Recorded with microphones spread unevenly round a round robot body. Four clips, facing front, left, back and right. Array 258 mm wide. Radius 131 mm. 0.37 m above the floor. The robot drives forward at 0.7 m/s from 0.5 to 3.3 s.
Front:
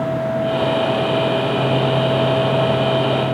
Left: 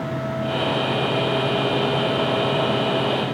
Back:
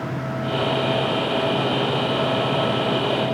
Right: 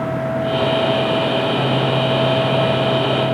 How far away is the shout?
I don't hear a shout.